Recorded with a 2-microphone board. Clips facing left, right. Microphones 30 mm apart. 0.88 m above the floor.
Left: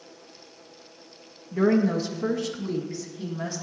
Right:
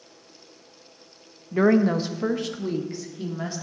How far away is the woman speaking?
About 0.5 m.